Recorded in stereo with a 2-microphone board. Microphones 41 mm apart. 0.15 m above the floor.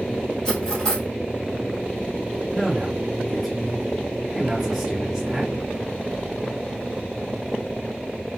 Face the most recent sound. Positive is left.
turn(degrees=-5)  # may be behind; listen again after turning